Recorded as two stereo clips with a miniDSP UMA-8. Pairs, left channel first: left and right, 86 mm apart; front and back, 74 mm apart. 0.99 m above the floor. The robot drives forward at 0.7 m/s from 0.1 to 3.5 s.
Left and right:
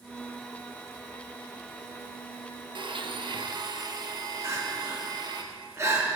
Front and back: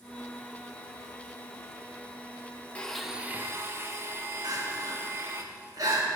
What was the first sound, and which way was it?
A blender, 70° right.